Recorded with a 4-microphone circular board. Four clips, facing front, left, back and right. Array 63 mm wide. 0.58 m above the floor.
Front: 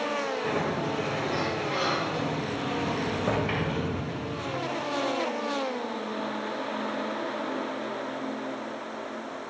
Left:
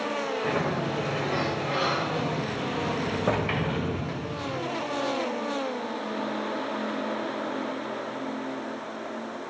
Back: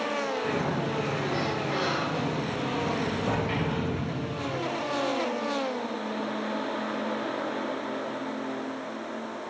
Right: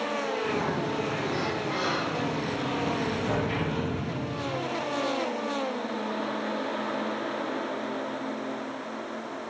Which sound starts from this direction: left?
A sliding door, at 0.4 s.